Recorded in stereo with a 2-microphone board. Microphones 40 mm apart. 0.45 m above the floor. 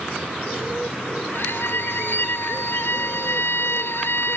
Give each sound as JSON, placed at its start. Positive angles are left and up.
{"t": 1.3, "sound": "a violin", "side_deg": 65}